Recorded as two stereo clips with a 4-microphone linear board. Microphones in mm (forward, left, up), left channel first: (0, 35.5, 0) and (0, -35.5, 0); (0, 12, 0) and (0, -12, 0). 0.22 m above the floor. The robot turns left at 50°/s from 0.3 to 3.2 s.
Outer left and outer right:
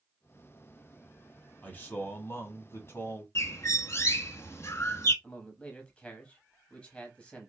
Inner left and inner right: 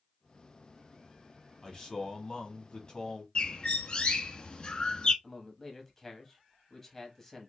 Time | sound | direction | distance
1.6 | a man speaking | 135° left | 1.2 m
3.4 | a bird | 40° left (ahead or behind) | 0.6 m
5.2 | a man speaking | 15° left (ahead or behind) | 0.9 m